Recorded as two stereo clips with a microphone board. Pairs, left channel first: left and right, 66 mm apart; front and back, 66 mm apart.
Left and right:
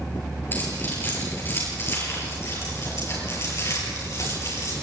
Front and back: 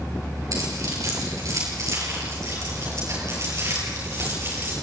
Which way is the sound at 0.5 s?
150° left.